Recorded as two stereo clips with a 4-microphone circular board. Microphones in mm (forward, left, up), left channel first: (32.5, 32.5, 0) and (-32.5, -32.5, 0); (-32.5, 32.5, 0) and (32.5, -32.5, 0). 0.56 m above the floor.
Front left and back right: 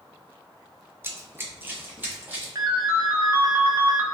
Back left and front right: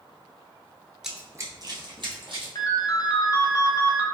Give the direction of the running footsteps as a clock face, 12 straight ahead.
4 o'clock.